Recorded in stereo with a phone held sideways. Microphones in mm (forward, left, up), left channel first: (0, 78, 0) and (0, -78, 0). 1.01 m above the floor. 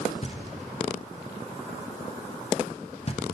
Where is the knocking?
40° left (ahead or behind), 0.9 m.